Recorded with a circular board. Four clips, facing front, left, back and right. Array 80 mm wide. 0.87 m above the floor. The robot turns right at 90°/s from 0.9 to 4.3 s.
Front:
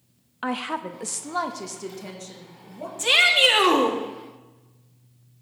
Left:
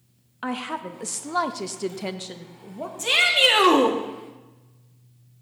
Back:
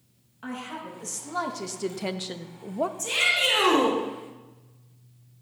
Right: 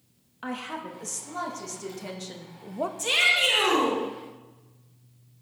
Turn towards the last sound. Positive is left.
turn(degrees=125)